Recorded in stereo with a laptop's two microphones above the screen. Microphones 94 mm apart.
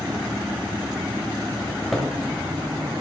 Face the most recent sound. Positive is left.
turn(degrees=0)  # may be behind; listen again after turning